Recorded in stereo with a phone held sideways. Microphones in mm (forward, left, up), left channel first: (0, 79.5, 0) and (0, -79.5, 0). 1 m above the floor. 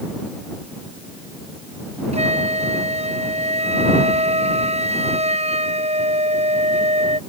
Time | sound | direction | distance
2.1 | a flute | 40° right (ahead or behind) | ?